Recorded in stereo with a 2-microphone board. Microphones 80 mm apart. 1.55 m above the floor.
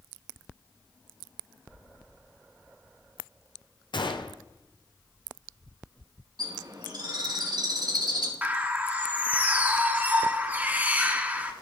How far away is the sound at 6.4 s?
About 3 m.